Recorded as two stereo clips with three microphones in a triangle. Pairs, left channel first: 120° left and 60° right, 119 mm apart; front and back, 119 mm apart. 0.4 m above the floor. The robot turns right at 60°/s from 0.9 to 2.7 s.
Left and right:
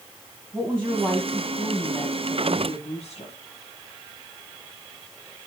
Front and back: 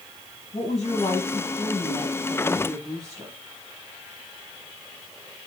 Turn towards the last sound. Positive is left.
turn(degrees=115)